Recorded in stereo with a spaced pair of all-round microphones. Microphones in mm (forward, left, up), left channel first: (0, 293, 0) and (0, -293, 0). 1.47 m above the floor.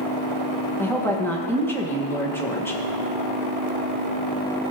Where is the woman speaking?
5° left (ahead or behind), 1.7 m.